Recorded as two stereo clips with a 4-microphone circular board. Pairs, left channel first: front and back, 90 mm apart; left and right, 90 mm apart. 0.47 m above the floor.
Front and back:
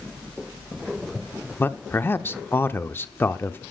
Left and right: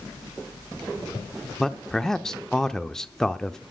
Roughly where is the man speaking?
Ahead.